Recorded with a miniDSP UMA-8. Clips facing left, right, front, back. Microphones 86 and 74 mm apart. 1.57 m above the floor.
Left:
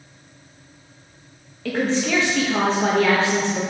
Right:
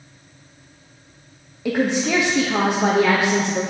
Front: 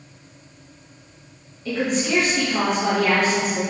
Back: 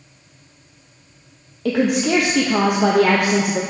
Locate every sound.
1.6 s a woman speaking: 165° right, 0.7 m